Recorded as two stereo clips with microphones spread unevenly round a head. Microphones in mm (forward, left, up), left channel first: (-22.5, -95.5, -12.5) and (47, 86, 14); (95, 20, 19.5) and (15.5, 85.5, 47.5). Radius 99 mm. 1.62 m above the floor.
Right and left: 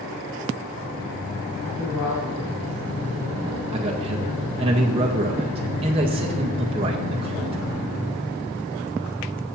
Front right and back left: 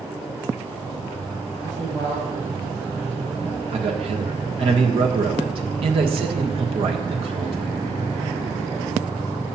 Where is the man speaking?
130° left, 1.5 m.